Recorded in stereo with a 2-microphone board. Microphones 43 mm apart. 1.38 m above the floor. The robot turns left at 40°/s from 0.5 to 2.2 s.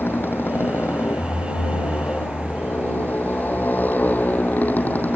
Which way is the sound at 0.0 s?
120° left.